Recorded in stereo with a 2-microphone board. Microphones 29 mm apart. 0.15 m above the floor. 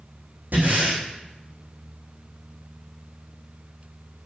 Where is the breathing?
80° right, 6 m.